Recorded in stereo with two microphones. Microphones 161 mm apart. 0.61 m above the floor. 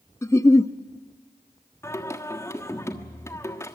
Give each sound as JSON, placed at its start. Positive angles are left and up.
{"t": 0.2, "sound": "a giggle", "side_deg": 15, "distance_m": 0.6}
{"t": 1.8, "sound": "singing", "side_deg": 15, "distance_m": 1.3}